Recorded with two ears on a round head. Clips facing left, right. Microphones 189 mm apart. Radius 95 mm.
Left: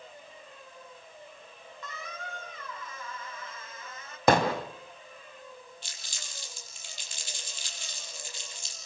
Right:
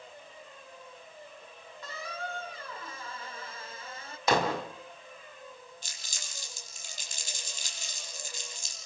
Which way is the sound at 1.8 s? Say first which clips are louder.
Right 4 dB; 25° right (ahead or behind).